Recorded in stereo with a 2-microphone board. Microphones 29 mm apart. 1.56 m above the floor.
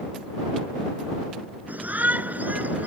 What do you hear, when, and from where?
1.7 s a shout: 80° right; by 2.9 s 75° right (ahead or behind)